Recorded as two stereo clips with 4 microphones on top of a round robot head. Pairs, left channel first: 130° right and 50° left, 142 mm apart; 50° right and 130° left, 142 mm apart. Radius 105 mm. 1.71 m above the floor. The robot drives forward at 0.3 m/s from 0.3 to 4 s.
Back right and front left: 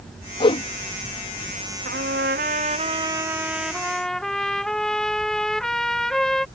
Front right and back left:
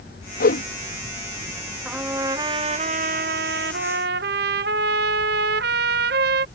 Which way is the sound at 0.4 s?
75° right.